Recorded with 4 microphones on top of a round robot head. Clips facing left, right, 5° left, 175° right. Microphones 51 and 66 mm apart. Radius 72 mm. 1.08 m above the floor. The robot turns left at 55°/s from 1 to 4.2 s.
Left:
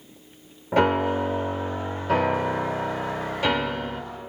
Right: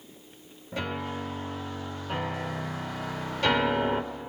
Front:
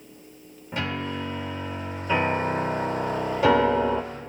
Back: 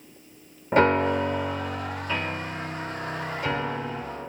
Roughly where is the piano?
Behind left.